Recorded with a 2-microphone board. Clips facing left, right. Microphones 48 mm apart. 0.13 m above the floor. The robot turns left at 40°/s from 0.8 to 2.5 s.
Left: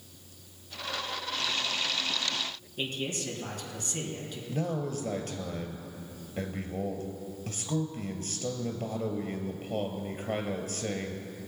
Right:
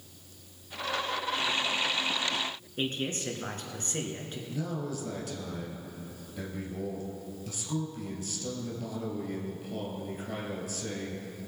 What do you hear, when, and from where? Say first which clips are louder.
2.8 s a man speaking: right 1 dB; 40° right (ahead or behind), 2 m
4.5 s a man speaking: left 3 dB; 45° left (ahead or behind), 2 m